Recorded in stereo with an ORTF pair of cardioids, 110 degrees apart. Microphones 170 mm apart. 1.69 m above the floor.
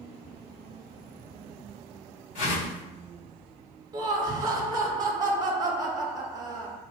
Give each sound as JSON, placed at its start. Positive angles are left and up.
{"t": 2.4, "sound": "a whoosh", "azimuth_deg": 50, "distance_m": 1.6}
{"t": 3.9, "sound": "laughter", "azimuth_deg": -25, "distance_m": 0.7}